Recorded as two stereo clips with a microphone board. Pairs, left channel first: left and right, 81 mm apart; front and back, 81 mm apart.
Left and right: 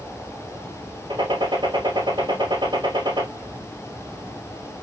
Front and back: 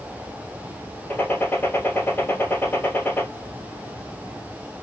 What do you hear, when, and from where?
1.1 s a gunshot: 65° right, 1.5 m